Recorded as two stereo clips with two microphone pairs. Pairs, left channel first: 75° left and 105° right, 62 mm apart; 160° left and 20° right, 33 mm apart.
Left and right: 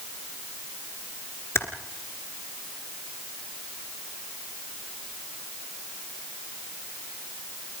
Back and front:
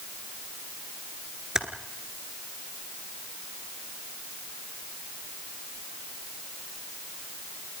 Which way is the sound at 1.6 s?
50° left.